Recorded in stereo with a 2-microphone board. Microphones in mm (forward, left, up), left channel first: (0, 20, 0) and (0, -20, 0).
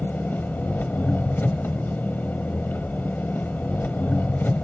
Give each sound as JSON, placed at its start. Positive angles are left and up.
{"t": 0.0, "sound": "an engine running", "side_deg": 50, "distance_m": 1.1}